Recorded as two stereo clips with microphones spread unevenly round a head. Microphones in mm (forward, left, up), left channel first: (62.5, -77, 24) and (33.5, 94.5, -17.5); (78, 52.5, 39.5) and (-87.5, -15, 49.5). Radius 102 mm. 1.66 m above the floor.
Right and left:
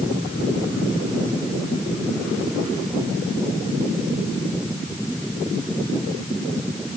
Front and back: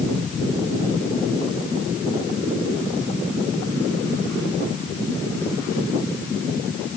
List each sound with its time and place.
Only background noise.